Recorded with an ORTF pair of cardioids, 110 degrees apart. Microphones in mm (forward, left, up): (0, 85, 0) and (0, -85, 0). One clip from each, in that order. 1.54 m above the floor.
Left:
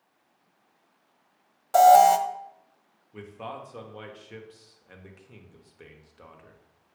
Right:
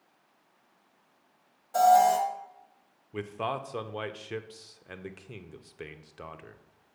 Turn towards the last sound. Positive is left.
turn(degrees=-35)